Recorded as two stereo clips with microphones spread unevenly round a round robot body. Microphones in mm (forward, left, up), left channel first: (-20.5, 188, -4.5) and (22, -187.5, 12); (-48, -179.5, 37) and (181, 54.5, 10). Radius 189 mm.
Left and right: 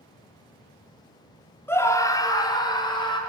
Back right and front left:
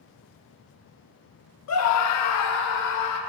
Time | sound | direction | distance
1.7 | a scream | straight behind | 1.7 m